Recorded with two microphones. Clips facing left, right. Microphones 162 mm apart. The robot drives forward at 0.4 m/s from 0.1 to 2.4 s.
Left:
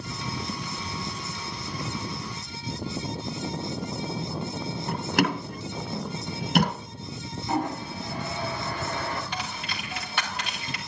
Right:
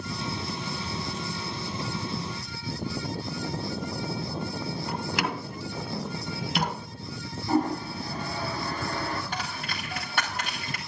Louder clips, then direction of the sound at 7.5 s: Right 3 dB; 40° right (ahead or behind).